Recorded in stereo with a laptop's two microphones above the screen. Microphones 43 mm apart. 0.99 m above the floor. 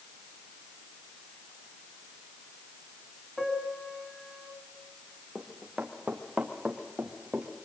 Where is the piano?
5° left (ahead or behind), 4.5 m.